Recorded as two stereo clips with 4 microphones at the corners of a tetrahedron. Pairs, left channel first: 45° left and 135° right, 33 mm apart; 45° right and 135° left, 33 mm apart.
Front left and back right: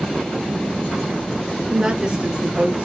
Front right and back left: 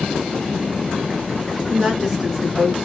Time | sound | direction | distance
1.7 | a woman speaking | 155° right | 1.4 m